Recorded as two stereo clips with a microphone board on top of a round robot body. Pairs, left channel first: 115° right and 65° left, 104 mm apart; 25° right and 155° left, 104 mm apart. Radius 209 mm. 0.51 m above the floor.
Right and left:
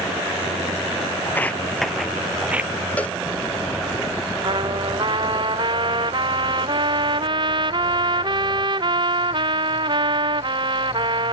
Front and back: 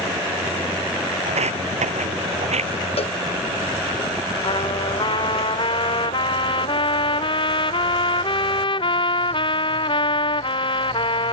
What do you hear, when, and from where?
1.3 s footsteps: 175° left; by 2.7 s 145° left
3.0 s a cowbell: 35° right
4.4 s a trumpet: 20° left